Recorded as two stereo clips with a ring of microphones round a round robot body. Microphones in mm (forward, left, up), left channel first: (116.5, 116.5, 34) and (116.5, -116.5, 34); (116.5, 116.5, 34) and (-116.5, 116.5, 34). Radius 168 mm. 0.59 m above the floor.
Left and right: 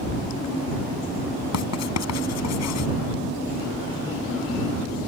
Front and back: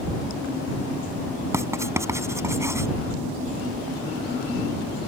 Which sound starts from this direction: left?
Writing, at 1.5 s.